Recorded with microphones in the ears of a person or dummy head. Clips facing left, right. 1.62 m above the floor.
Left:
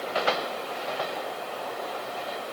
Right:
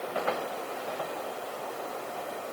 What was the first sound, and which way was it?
Only background noise.